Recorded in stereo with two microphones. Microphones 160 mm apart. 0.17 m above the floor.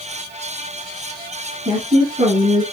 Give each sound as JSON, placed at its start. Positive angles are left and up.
{"t": 1.6, "sound": "a woman speaking", "side_deg": -40, "distance_m": 3.0}